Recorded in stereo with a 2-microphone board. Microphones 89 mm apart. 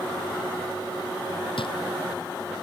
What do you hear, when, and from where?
1.6 s a drawer: 75° left (ahead or behind)